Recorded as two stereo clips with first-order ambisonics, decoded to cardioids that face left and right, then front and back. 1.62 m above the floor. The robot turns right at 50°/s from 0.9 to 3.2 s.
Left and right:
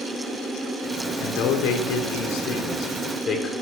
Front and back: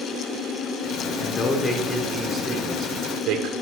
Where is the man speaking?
45° left, 0.9 m; by 3.5 s 145° left, 0.9 m.